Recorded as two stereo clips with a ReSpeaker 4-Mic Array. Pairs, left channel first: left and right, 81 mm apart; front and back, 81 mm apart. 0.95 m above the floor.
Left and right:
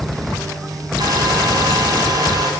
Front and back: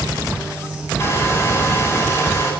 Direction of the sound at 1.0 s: 55° right.